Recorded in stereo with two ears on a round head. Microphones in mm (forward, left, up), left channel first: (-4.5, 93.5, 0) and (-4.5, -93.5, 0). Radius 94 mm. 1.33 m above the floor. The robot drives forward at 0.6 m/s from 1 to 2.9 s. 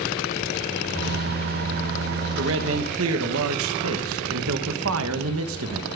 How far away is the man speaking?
About 1.4 m.